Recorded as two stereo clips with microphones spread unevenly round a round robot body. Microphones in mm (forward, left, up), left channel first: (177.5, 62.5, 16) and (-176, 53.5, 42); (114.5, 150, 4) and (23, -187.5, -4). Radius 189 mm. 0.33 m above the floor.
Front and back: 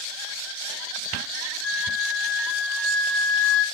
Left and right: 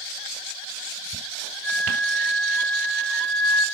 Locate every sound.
1.6 s a flute: 165° left, 7.5 m